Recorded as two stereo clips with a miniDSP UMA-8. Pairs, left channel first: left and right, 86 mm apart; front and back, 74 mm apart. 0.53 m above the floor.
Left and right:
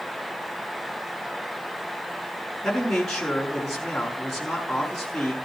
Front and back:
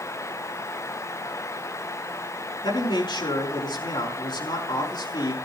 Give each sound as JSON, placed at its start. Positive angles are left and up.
{"t": 2.6, "sound": "a man speaking", "azimuth_deg": 5, "distance_m": 6.0}